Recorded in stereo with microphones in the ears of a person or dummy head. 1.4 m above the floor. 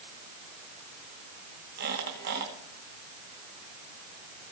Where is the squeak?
55° right (ahead or behind), 1.9 m.